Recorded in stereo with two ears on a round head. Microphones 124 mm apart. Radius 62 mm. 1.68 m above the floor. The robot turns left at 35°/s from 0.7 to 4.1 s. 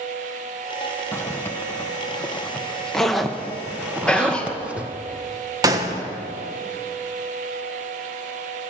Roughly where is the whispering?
Centre.